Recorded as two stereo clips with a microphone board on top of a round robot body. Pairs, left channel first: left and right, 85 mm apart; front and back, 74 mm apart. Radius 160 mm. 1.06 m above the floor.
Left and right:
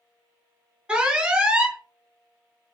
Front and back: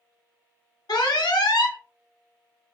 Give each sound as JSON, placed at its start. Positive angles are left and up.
{"t": 0.9, "sound": "an alarm", "azimuth_deg": -10, "distance_m": 1.1}